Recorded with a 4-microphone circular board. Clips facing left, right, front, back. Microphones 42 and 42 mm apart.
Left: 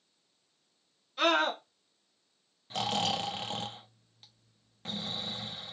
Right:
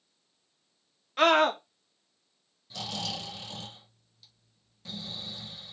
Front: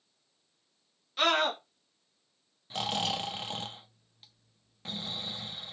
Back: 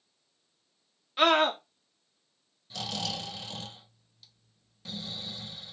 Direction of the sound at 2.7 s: 50° left.